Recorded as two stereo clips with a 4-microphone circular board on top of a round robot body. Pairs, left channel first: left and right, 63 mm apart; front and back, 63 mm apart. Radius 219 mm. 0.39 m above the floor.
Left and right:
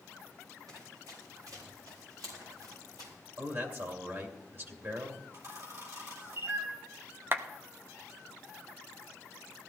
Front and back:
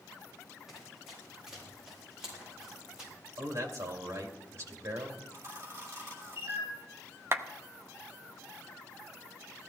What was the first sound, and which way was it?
Running footsteps, 95° right.